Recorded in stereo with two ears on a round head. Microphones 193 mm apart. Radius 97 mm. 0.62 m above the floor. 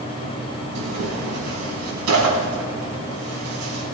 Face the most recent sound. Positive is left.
turn(degrees=-75)  # may be behind; listen again after turning